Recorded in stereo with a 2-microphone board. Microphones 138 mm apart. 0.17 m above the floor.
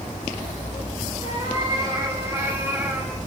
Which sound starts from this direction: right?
A cat meowing, at 1.2 s.